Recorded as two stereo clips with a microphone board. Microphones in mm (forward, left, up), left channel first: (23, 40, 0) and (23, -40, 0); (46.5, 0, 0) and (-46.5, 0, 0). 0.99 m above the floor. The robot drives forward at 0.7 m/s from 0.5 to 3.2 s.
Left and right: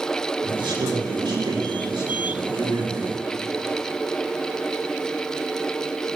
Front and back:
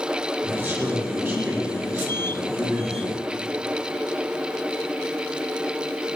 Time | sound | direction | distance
0.4 | a man speaking | 115° right | 6.5 m